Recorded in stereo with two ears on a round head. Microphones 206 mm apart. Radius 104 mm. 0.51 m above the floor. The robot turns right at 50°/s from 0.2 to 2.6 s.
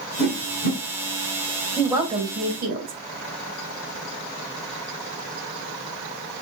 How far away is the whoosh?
About 1.9 m.